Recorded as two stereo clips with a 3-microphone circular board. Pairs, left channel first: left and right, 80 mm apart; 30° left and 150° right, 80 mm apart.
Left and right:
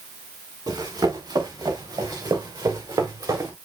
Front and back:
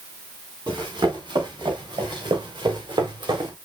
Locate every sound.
0.7 s running footsteps: 125° right, 5.5 m; by 3.5 s 130° right, 3.5 m